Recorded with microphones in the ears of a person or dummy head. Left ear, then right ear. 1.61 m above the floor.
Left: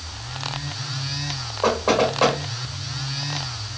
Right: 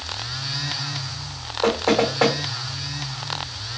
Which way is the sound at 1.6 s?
45° right (ahead or behind).